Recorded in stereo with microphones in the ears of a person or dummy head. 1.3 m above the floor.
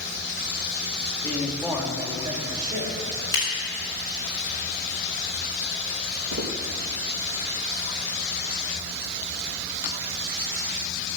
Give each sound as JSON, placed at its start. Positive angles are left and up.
{"t": 1.2, "sound": "a man speaking", "side_deg": 10, "distance_m": 2.0}
{"t": 3.3, "sound": "scissors", "side_deg": 20, "distance_m": 5.5}
{"t": 6.3, "sound": "footsteps", "side_deg": -75, "distance_m": 4.5}